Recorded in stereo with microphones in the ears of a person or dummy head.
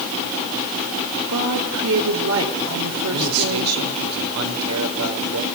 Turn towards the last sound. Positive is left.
turn(degrees=-85)